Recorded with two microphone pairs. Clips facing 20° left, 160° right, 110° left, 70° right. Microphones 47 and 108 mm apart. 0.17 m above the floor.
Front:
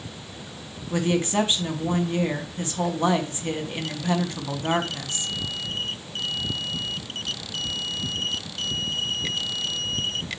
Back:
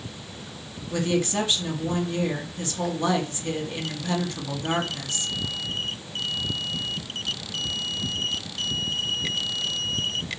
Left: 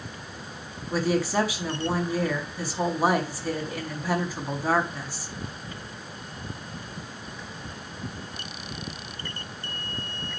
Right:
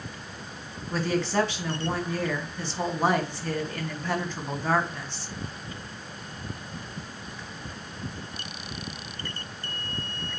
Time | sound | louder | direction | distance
0.9 | a woman speaking | front 1 dB, left 2 dB | 40° left | 1.5 m